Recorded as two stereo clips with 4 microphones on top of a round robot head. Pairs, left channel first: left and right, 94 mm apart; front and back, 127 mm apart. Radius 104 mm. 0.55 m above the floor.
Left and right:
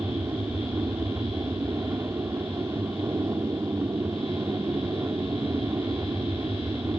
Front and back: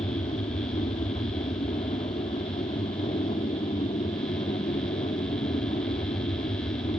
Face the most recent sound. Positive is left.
turn(degrees=-35)